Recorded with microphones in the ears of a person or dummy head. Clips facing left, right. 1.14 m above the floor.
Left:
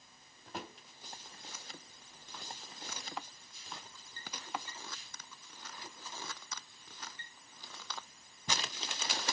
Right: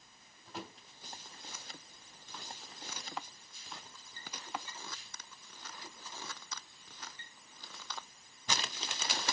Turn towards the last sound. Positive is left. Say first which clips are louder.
# left 1 dB
turn(degrees=50)  # may be behind; listen again after turning